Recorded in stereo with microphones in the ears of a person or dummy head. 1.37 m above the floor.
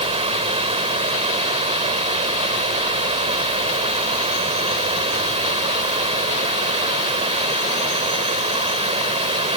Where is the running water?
25° right (ahead or behind).